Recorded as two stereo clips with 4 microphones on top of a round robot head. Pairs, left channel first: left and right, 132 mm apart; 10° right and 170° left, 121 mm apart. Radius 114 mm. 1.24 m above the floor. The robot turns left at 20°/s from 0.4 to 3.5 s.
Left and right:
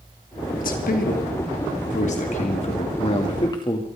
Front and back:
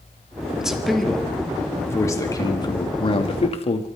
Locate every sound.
0.6 s a man speaking: 85° left, 3 m; by 3.9 s 30° left, 3 m